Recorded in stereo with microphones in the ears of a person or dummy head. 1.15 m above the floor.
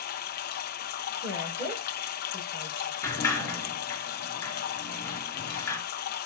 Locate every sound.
0.0 s running water: 55° left (ahead or behind), 0.8 m
1.2 s a woman speaking: 15° right (ahead or behind), 5.5 m
3.0 s a sliding door: 20° left (ahead or behind), 4 m